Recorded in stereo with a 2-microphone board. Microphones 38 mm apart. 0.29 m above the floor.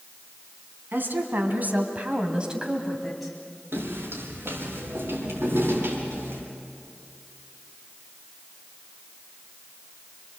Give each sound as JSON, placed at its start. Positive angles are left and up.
{"t": 0.9, "sound": "a woman speaking", "side_deg": -60, "distance_m": 3.0}
{"t": 3.7, "sound": "footsteps", "side_deg": -75, "distance_m": 7.0}